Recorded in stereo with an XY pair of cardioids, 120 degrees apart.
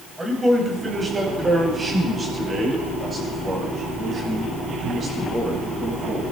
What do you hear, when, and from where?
0.2 s a man speaking: 15° right, 6 m; by 6.2 s 40° right, 8.5 m